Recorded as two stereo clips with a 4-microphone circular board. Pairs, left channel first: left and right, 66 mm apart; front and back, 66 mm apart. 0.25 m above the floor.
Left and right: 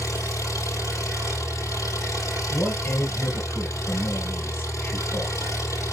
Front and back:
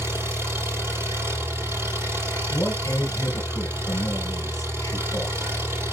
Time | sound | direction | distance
0.0 | an engine running | 125° left | 4.5 m
2.5 | a man speaking | 30° left | 4 m